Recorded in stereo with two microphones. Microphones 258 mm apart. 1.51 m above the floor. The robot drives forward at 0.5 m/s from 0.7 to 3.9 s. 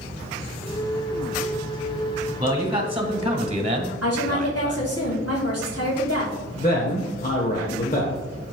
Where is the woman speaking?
65° left (ahead or behind), 2.5 m.